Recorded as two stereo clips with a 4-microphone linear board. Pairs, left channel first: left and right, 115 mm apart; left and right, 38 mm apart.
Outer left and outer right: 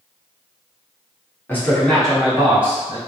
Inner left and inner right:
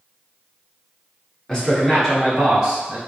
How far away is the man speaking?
About 1.3 m.